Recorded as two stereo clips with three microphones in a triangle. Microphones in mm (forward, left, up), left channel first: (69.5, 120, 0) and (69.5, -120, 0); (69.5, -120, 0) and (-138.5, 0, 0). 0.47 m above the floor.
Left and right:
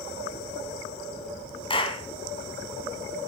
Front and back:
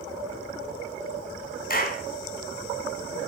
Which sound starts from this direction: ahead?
A clap, at 1.7 s.